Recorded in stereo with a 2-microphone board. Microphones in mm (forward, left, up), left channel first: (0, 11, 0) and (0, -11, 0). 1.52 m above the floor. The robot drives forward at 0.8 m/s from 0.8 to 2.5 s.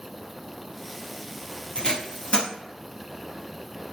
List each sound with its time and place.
1.8 s tape being pulled: 50° left (ahead or behind), 1.7 m; by 2.5 s 65° left (ahead or behind), 1.5 m